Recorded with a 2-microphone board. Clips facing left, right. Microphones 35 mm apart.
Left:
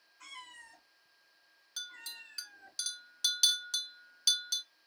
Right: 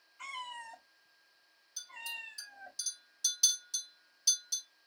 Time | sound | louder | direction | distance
0.2 | a cat meowing | right 7 dB | 80° right | 2.5 m
1.8 | a clink | right 2 dB | 60° left (ahead or behind) | 0.8 m